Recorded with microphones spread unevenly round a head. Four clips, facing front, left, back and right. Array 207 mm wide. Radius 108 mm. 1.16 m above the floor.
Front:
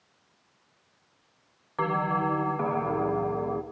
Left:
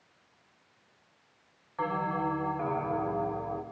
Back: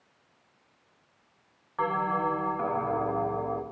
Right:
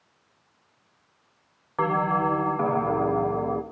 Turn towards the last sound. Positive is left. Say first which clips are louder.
# right 7 dB, front 1 dB
turn(degrees=-65)